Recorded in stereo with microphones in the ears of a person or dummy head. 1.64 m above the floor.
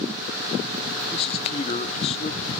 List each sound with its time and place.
1.1 s a man speaking: 30° left (ahead or behind), 0.8 m